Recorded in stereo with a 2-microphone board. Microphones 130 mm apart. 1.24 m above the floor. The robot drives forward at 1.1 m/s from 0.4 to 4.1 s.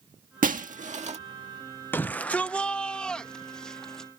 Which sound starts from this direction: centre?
A shout, at 1.9 s.